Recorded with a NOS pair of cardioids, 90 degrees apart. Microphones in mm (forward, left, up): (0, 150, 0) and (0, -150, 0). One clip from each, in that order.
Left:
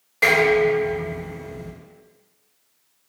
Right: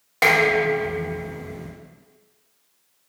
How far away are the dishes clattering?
About 1.7 m.